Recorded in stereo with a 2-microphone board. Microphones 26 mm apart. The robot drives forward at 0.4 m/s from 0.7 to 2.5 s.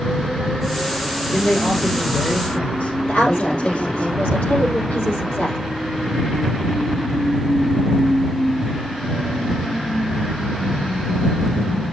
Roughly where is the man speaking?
Left.